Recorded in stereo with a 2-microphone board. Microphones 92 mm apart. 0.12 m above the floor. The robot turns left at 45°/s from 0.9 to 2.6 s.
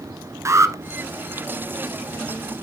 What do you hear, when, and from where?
0.5 s an alarm: 35° right (ahead or behind), 1.0 m